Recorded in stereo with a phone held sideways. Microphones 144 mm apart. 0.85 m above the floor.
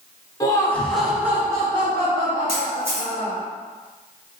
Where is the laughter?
25° left (ahead or behind), 1.2 m; by 3.4 s 60° right (ahead or behind), 2 m.